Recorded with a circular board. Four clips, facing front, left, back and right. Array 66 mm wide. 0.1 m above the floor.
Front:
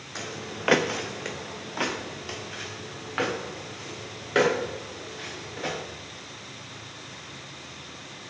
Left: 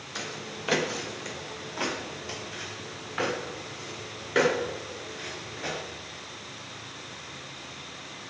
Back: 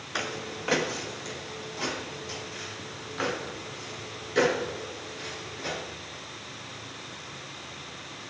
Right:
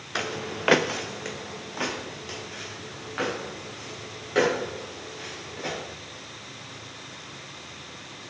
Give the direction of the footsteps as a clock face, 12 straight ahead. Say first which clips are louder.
Right 7 dB, back 2 dB; 4 o'clock.